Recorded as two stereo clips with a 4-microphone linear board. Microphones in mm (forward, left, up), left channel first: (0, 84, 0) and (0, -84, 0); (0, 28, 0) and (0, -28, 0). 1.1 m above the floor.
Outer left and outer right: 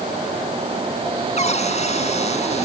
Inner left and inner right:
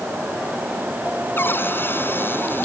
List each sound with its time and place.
1.4 s a cupboard door: 40° left (ahead or behind)